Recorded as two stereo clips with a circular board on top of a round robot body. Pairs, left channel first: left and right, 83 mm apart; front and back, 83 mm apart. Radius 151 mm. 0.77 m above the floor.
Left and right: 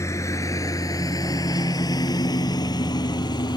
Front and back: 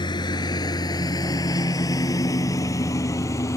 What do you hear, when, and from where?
0.0 s a lawn mower: 35° left; by 3.6 s 55° left